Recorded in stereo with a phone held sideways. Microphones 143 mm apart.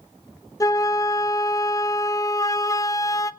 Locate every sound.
0.6 s a flute: 25° left (ahead or behind), 0.6 m